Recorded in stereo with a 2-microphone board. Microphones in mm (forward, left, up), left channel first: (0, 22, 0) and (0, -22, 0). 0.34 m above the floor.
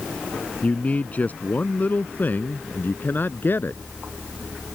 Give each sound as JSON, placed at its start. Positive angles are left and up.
{"t": 0.6, "sound": "a man speaking", "side_deg": 35}